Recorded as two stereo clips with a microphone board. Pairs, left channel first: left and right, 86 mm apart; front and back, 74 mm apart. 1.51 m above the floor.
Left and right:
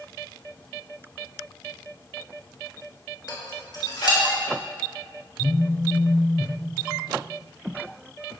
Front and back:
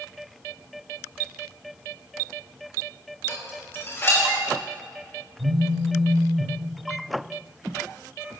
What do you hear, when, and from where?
3.3 s dishes clattering: 55° left, 3 m
5.4 s a phone buzzing: 160° left, 0.6 m